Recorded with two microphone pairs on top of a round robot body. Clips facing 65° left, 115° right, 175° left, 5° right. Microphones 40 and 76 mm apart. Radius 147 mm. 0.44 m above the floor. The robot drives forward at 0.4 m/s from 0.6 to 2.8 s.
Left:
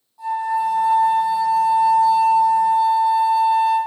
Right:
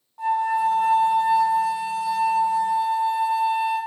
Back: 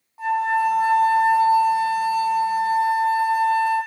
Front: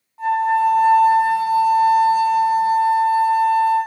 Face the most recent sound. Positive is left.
turn(degrees=-145)